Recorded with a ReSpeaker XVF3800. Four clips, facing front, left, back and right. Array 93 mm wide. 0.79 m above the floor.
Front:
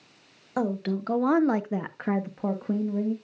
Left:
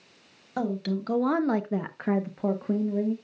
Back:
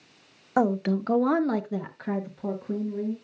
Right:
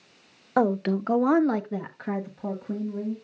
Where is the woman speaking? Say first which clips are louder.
Right 6 dB, back 4 dB; 120° right, 0.9 m; by 3.1 s 45° left, 1.5 m.